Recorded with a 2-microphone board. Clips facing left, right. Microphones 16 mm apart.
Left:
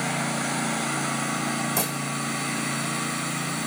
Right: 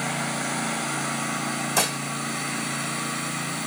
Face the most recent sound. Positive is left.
turn(degrees=-35)  # may be behind; listen again after turning